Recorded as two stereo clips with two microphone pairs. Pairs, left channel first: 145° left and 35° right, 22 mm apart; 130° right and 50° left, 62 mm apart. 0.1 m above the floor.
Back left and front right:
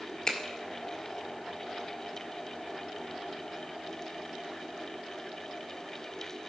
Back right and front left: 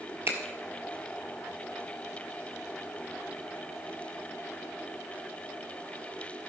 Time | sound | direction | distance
0.3 | a finger snap | 85° left | 1.7 m